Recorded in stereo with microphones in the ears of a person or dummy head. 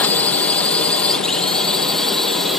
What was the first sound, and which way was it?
A drone, 15° left (ahead or behind).